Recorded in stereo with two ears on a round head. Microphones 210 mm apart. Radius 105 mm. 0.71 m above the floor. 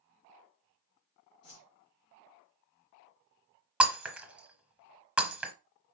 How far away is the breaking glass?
About 1.0 m.